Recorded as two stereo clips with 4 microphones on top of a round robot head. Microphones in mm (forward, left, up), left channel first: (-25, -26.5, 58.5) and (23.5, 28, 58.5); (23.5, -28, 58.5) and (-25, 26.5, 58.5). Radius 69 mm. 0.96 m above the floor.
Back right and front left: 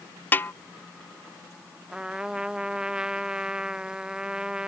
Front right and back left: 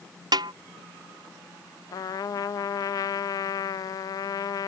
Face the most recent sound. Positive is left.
turn(degrees=-30)